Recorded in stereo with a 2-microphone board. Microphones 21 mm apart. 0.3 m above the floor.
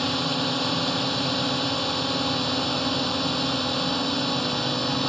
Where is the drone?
5° left (ahead or behind); by 5.1 s 10° left (ahead or behind).